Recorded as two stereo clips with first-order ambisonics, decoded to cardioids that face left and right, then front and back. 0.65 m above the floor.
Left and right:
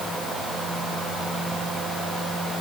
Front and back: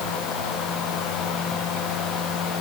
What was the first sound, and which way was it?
Only background noise.